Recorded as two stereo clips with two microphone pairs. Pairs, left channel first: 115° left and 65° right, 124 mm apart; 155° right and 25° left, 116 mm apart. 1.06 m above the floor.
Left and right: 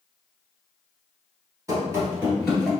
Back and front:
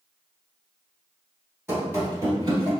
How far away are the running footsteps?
About 1.2 m.